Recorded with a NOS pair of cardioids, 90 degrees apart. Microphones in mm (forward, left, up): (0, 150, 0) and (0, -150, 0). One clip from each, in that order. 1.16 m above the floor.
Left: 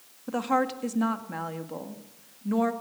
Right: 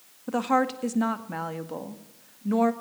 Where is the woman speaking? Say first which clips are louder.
Right 2 dB; 15° right, 1.9 m.